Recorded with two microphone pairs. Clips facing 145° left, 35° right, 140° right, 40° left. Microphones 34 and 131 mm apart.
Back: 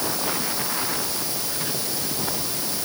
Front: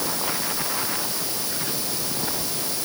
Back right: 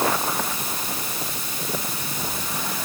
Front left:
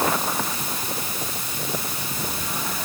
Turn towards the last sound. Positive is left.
No sound to turn to.